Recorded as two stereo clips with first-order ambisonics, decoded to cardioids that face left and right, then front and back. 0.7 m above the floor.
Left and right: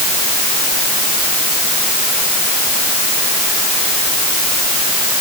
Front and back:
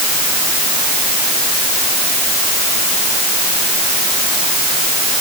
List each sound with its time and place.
Only background noise.